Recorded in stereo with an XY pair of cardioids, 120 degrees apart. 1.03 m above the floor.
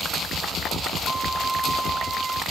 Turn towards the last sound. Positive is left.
turn(degrees=-20)